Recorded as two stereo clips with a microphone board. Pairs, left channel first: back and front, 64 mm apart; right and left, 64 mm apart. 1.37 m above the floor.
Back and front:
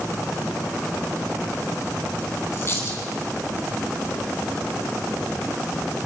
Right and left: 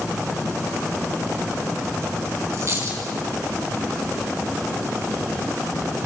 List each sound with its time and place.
2.5 s a dropped coin: 130° left, 5 m